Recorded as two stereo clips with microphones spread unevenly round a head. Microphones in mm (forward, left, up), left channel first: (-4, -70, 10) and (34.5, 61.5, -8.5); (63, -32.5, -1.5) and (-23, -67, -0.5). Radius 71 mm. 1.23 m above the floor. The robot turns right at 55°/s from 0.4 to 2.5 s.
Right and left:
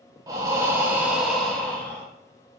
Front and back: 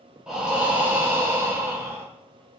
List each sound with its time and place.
0.3 s breathing: 130° left, 0.6 m; by 2.0 s 140° right, 0.6 m